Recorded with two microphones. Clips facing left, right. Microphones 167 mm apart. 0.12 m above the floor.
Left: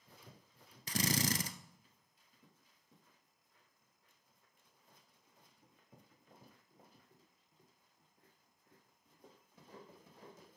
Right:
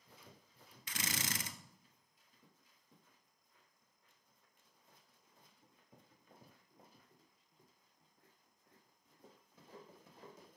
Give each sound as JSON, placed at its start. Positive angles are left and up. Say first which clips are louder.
{"t": 0.9, "sound": "a drill", "louder": "left 9 dB", "side_deg": 40, "distance_m": 0.8}